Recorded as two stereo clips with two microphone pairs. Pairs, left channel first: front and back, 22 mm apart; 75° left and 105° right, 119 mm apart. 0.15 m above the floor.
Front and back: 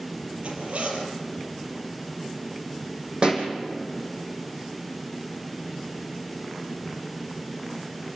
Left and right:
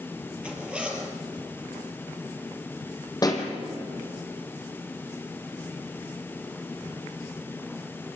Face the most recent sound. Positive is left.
turn(degrees=130)